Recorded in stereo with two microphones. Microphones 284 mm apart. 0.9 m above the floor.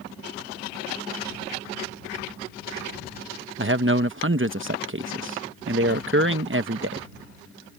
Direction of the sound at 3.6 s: 45° right (ahead or behind).